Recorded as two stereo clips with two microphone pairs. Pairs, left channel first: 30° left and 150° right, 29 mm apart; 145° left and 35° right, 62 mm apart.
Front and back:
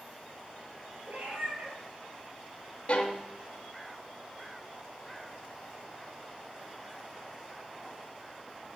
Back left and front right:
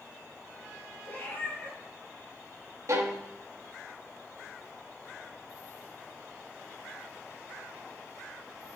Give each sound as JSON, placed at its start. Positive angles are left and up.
{"t": 1.1, "sound": "a cat meowing", "azimuth_deg": -155, "distance_m": 5.0}
{"t": 2.9, "sound": "a violin", "azimuth_deg": -10, "distance_m": 1.4}